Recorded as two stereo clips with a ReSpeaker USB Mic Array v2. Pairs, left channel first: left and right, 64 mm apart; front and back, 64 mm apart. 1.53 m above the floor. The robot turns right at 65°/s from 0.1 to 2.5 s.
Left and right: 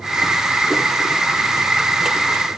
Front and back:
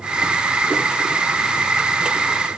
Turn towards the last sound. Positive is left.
No sound to turn to.